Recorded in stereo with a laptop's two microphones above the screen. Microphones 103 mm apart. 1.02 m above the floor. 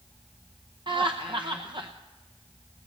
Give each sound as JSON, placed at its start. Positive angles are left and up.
{"t": 0.9, "sound": "laughter", "side_deg": -45, "distance_m": 0.6}